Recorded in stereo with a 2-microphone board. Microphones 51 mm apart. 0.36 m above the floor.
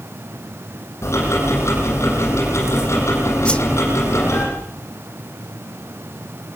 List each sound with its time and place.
1.0 s ticking: 70° left (ahead or behind), 8 m
3.5 s a whoosh: 20° left (ahead or behind), 0.9 m